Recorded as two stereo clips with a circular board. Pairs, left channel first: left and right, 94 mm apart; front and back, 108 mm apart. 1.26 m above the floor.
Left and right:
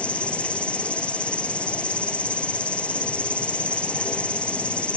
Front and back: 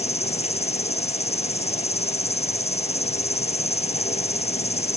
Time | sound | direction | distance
0.0 | an insect | 10° left | ?